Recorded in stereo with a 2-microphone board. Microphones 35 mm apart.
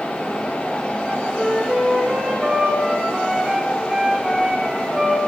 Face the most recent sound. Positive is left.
turn(degrees=-10)  # may be behind; listen again after turning